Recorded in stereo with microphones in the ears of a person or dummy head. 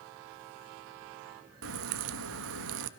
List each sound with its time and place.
1.6 s a crack: 75° right (ahead or behind), 1.2 m